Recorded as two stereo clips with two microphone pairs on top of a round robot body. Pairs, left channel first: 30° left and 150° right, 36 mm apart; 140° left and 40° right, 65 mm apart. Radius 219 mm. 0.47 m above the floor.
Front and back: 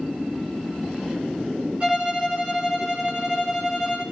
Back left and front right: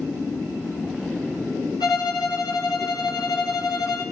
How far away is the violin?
About 9.5 m.